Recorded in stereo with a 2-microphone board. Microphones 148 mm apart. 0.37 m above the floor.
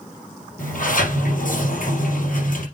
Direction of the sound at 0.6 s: 75° left (ahead or behind).